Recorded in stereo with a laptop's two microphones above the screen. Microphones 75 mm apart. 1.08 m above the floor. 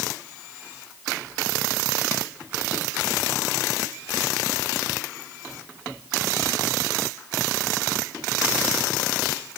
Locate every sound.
Only background noise.